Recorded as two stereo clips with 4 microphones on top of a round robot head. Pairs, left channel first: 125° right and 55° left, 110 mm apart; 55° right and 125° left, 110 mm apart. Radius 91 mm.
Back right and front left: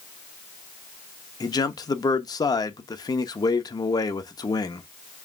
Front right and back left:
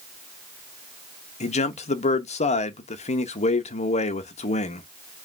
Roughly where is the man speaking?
Right.